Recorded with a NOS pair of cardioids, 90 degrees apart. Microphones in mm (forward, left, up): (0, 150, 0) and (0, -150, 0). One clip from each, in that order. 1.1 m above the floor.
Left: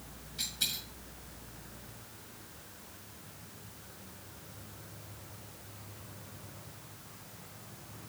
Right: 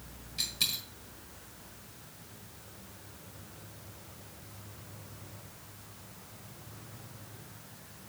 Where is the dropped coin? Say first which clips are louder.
Right 3 dB; 70° right, 4.5 m.